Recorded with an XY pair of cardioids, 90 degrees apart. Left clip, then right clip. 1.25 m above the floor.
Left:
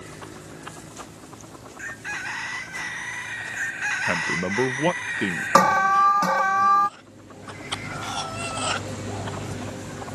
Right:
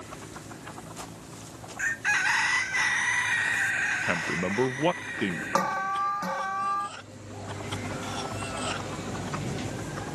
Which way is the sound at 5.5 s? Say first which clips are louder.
Left 11 dB; 65° left.